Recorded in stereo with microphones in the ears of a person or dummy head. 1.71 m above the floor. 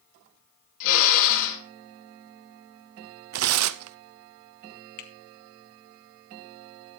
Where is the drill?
70° left (ahead or behind), 5.5 m.